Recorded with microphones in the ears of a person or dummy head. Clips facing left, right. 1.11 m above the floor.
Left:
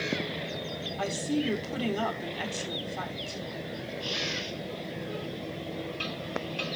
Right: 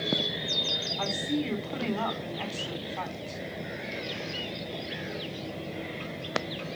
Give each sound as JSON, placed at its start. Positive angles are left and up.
{"t": 1.0, "sound": "a woman speaking", "side_deg": 15, "distance_m": 3.0}